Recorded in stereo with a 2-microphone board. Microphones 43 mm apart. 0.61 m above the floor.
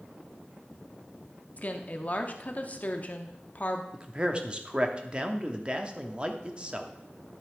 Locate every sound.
1.6 s a woman speaking: 40° left (ahead or behind), 0.9 m
3.9 s a man speaking: 25° right (ahead or behind), 0.9 m